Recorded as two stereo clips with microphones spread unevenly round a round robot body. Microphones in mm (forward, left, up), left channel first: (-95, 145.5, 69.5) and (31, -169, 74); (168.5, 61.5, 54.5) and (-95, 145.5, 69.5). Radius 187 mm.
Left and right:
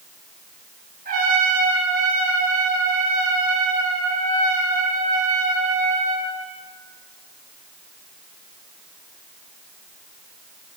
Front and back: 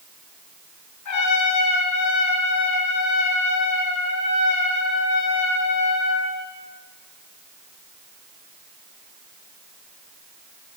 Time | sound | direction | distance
1.1 | a trumpet | straight ahead | 9.5 m